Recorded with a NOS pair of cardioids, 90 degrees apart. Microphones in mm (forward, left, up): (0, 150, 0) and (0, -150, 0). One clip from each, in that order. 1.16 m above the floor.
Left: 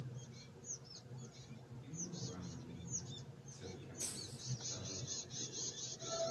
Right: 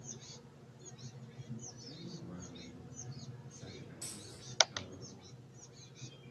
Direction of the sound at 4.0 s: 25° left.